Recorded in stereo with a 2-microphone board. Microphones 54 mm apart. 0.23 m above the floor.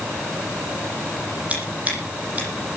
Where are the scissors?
30° right (ahead or behind), 9.5 m.